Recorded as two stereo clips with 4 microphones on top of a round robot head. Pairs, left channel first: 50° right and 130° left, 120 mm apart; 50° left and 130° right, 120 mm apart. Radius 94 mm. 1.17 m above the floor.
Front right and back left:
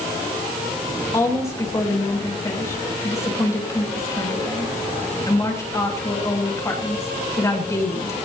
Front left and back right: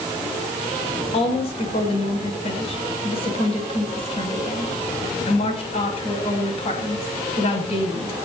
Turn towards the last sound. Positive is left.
turn(degrees=15)